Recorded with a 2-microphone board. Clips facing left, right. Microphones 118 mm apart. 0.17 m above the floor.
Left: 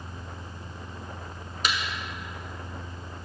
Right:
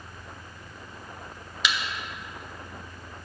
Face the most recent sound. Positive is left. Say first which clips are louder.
# even
turn(degrees=45)  # may be behind; listen again after turning